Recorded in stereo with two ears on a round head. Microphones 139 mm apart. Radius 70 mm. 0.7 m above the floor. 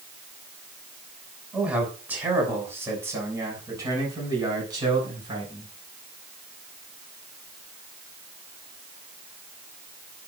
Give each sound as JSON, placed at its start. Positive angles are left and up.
{"t": 1.5, "sound": "a man speaking", "side_deg": -10, "distance_m": 6.0}